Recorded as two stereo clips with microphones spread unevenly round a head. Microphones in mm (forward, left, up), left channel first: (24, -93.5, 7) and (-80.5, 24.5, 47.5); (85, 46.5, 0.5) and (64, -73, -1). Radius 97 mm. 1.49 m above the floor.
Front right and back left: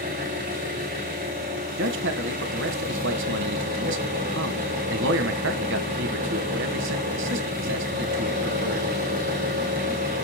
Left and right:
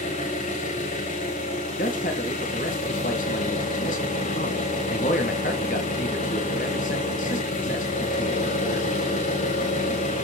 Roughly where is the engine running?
Left.